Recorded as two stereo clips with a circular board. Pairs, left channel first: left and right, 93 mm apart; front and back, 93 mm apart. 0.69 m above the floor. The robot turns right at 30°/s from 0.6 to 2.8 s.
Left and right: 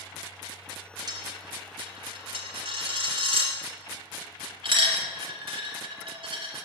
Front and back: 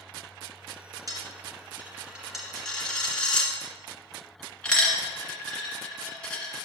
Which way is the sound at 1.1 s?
130° right.